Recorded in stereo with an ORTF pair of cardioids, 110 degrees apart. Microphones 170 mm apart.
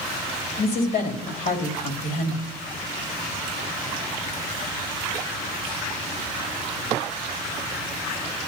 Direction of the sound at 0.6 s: 65° left.